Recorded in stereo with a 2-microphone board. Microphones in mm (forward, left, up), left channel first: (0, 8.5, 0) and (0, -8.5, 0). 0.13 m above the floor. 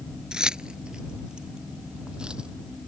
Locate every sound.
0.3 s keys jangling: 55° right (ahead or behind); by 2.5 s 60° right (ahead or behind)